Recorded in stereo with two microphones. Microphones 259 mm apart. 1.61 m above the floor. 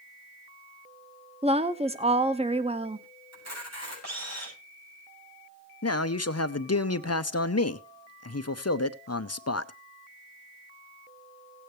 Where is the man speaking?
65° left (ahead or behind), 0.8 m.